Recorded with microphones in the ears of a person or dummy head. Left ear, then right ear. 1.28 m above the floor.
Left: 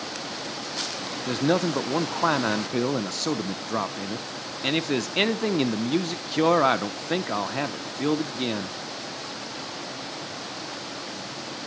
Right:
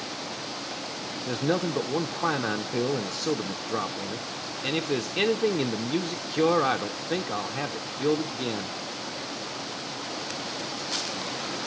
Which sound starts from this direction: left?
A man speaking, at 1.3 s.